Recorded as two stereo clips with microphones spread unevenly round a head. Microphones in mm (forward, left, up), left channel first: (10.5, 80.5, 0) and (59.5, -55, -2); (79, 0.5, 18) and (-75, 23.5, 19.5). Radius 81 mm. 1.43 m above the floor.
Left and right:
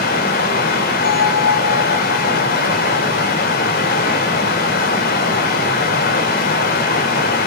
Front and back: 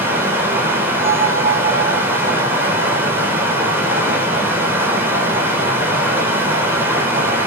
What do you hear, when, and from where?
0.0 s running water: 95° left, 5.5 m
1.0 s a bell: 100° left, 5.5 m